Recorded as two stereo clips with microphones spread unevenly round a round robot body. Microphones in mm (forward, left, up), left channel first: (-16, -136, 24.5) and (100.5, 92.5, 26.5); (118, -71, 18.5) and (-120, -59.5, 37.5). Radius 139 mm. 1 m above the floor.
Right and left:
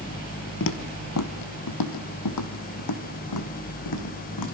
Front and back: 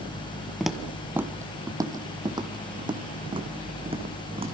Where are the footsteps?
95° right, 1.4 m; by 4.5 s 115° right, 4.5 m.